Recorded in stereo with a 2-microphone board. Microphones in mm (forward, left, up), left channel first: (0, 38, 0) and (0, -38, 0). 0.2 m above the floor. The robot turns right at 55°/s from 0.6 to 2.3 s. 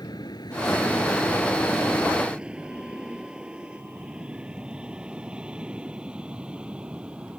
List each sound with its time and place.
0.0 s an aircraft: 65° left (ahead or behind); by 7.4 s 15° right (ahead or behind)